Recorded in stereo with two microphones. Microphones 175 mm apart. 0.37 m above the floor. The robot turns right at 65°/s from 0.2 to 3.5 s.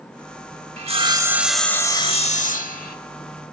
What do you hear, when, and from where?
0.8 s sawing: 50° right, 0.7 m; by 3.0 s 90° left, 0.7 m